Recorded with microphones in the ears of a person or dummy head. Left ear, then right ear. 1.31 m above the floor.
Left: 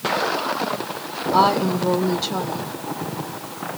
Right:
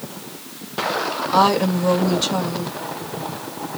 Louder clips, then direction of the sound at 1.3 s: Even; 75° right (ahead or behind).